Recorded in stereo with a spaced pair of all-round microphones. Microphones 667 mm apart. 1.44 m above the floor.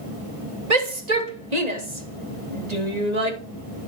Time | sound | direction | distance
0.7 | a shout | 75° right (ahead or behind) | 3 m